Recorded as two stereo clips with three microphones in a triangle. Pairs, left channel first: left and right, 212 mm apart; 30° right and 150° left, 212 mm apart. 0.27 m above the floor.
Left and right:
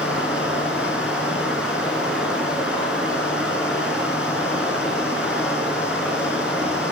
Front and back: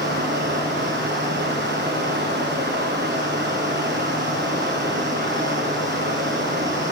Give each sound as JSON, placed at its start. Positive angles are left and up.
{"t": 0.0, "sound": "running water", "azimuth_deg": -175, "distance_m": 2.5}